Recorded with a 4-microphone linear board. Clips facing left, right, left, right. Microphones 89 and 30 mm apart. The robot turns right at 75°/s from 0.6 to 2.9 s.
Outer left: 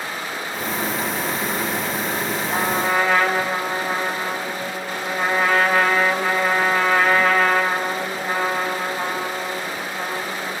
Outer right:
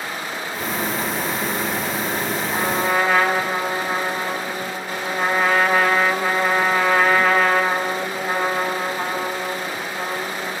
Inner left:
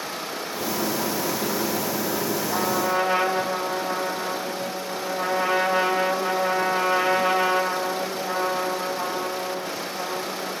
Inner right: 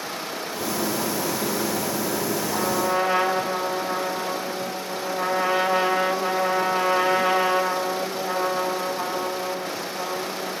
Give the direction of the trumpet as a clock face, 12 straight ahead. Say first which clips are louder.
Even, even; 7 o'clock.